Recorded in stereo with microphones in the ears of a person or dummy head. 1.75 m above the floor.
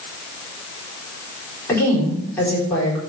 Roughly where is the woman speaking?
Centre.